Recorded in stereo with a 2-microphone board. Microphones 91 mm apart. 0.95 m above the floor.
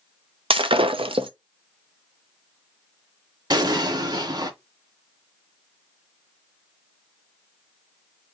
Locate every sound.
0.5 s breaking glass: 75° right (ahead or behind), 0.5 m
3.5 s an explosion: 50° right (ahead or behind), 1.1 m